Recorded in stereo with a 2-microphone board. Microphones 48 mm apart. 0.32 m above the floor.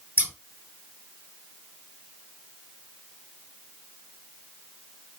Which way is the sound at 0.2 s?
40° right (ahead or behind).